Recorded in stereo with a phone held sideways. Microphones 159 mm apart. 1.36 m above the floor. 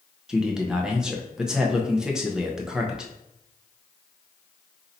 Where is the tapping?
I don't hear tapping.